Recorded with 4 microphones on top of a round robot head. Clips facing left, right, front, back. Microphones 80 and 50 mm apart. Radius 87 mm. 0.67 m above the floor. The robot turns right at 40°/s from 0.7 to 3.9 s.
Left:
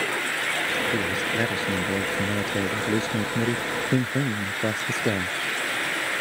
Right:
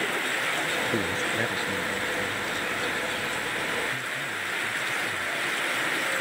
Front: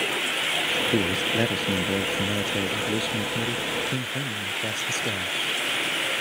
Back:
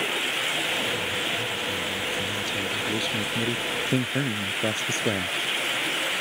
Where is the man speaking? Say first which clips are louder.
Left 2 dB, front 4 dB; straight ahead; by 5.3 s 120° left.